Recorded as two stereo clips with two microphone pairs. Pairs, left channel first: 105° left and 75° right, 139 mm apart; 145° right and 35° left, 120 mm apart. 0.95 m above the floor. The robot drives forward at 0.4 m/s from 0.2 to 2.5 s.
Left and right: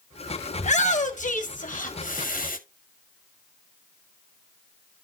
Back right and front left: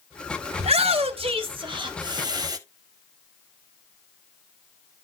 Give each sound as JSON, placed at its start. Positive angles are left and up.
{"t": 0.6, "sound": "a shout", "azimuth_deg": 70, "distance_m": 1.9}